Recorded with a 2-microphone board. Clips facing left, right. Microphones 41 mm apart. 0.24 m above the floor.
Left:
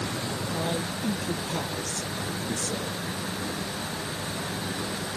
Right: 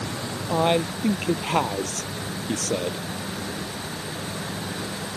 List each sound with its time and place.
0.5 s a man speaking: 75° right (ahead or behind)